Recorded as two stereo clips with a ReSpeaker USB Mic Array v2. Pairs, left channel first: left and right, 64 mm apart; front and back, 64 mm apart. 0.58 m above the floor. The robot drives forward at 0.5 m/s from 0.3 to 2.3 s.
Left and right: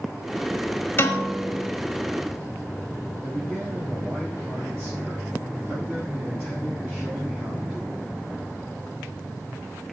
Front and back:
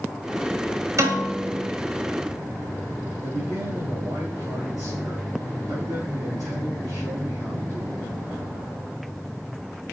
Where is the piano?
145° left, 1.4 m; by 1.7 s 155° left, 1.8 m.